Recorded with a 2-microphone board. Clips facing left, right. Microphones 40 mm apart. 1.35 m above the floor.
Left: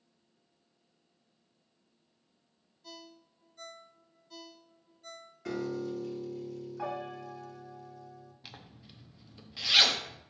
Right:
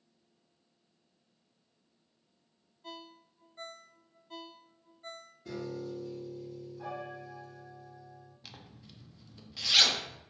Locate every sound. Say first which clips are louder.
2.8 s a ringtone: right 3 dB; 35° right (ahead or behind), 0.6 m
5.5 s a piano: left 4 dB; 80° left, 1.2 m
8.4 s a zipper: left 1 dB; 10° left (ahead or behind), 1.0 m